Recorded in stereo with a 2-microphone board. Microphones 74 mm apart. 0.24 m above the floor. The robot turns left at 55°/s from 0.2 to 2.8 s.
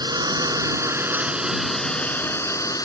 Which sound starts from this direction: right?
A drone, at 0.0 s.